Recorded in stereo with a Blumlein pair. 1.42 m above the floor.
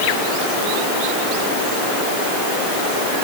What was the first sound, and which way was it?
Only background noise.